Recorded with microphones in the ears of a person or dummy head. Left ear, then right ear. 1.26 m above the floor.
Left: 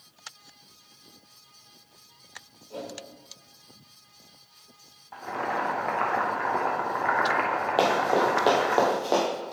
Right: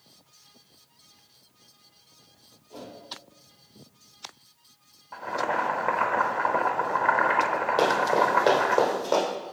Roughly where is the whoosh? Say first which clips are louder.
Left 5 dB; left.